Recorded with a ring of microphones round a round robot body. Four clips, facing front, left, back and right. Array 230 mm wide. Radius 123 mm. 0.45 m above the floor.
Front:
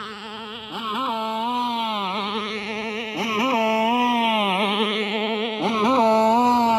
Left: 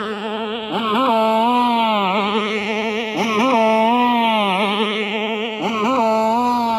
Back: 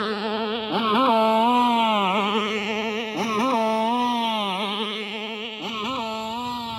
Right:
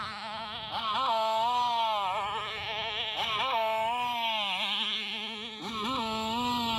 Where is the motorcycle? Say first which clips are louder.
Left 15 dB, back 9 dB; 125° left; by 6.8 s 40° left.